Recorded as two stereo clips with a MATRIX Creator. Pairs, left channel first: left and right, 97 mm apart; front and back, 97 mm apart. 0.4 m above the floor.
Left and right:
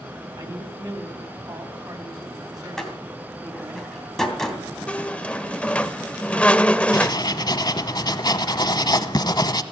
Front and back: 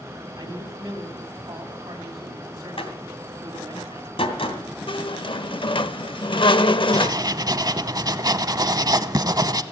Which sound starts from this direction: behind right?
A man speaking, at 0.4 s.